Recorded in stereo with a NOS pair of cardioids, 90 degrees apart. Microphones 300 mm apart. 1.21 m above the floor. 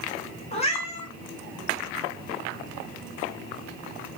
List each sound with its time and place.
0.5 s a cat meowing: 20° left, 1.3 m